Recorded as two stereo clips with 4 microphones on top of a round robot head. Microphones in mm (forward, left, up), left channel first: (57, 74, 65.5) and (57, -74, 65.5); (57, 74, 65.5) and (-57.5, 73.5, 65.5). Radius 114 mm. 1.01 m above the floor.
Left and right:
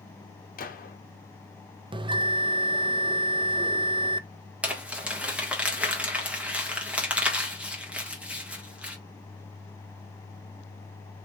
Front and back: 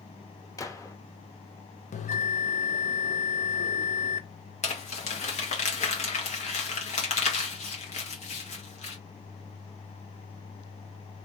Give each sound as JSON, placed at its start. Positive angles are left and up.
{"t": 0.6, "sound": "a gunshot", "azimuth_deg": 65, "distance_m": 1.1}
{"t": 1.9, "sound": "a bell", "azimuth_deg": -30, "distance_m": 0.5}
{"t": 4.6, "sound": "crumpling", "azimuth_deg": -10, "distance_m": 1.7}